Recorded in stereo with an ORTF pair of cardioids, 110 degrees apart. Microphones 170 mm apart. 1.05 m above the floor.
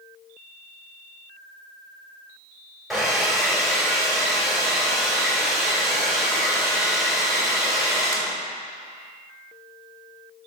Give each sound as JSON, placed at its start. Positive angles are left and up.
{"t": 2.9, "sound": "a hair dryer", "azimuth_deg": 0, "distance_m": 2.5}